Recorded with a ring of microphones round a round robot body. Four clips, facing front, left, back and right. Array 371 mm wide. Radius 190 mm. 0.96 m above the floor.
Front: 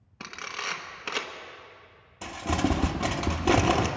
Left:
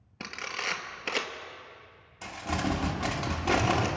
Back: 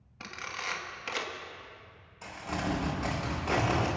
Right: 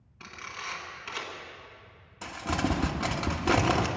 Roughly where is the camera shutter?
Ahead left.